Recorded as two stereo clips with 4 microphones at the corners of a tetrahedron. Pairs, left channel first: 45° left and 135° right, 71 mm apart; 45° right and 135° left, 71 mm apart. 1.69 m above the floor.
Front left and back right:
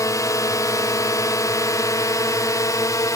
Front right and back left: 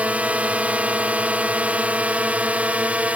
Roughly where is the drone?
Left.